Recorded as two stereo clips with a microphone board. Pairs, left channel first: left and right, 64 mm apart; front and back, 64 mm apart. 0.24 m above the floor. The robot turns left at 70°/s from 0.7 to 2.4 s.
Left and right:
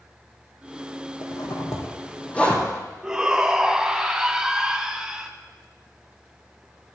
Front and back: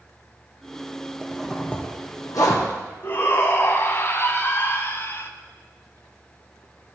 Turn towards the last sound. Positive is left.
turn(degrees=-15)